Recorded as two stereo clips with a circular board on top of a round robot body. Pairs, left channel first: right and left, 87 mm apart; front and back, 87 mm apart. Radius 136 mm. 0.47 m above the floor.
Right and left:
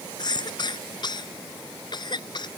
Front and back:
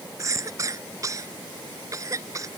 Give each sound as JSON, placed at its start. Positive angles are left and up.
{"t": 0.2, "sound": "a cough", "azimuth_deg": -125}